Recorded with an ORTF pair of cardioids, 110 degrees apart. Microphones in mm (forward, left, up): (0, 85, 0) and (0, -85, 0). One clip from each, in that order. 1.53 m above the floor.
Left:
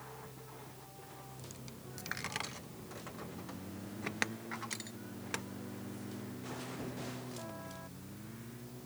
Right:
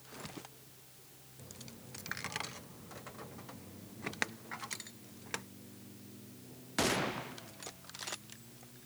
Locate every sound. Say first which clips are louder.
1.4 s a dropped coin: left 2 dB; 5° left